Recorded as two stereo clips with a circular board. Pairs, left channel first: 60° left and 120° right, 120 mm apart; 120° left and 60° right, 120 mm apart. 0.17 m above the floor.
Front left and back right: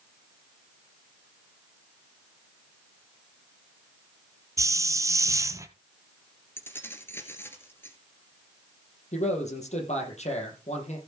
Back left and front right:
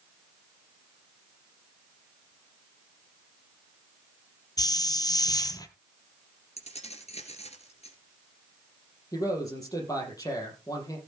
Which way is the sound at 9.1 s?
60° left.